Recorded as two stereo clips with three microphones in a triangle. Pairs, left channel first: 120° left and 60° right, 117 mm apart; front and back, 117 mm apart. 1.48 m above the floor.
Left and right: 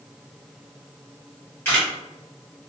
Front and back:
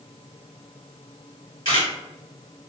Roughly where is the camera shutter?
Ahead left.